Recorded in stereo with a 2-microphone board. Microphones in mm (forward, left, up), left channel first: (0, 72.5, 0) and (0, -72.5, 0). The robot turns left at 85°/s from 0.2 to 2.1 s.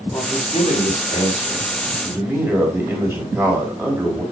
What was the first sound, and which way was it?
A man speaking, 145° left.